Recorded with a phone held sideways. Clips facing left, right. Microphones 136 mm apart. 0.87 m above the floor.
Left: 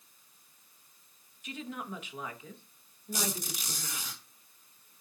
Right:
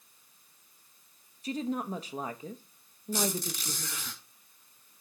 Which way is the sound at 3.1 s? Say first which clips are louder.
Right 5 dB; 15° left (ahead or behind).